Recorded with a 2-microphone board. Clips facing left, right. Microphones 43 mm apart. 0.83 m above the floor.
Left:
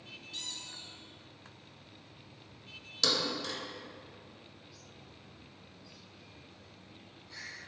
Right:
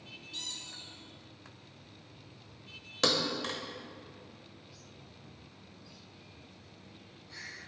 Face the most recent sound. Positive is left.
turn(degrees=-45)  # may be behind; listen again after turning